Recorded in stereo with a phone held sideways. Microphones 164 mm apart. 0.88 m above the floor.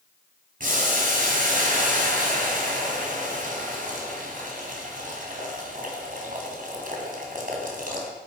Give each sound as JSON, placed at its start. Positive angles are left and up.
{"t": 0.6, "sound": "boiling", "side_deg": -60, "distance_m": 3.0}